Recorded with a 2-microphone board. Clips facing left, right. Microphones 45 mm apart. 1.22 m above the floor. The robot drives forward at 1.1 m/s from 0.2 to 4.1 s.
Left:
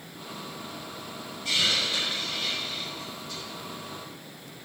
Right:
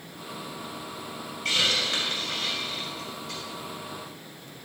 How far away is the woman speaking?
I don't hear a woman speaking.